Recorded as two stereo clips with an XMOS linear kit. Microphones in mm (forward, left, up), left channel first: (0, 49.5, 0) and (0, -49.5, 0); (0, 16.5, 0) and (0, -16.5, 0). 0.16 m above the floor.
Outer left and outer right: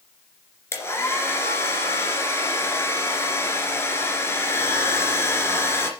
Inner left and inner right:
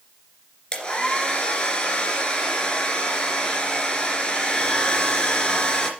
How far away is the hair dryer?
About 2.5 m.